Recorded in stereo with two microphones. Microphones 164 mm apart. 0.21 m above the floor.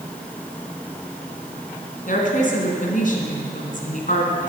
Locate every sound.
2.1 s a woman speaking: 55° left (ahead or behind), 2 m